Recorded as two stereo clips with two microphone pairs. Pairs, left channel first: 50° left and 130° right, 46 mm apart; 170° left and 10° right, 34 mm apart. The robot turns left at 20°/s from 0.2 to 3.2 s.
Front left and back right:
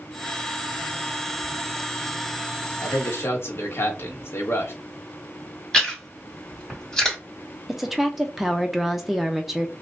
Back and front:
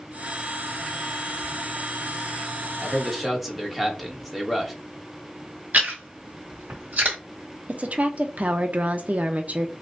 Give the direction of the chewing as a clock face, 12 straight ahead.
1 o'clock.